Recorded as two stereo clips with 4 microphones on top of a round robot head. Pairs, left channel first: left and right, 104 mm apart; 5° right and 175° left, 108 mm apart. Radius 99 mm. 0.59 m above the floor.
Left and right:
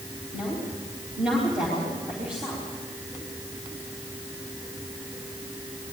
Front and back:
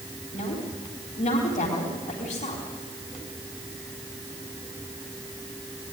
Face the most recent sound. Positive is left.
turn(degrees=-5)